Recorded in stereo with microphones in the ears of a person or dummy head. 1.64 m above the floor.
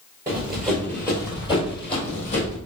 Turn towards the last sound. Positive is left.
turn(degrees=40)  # may be behind; listen again after turning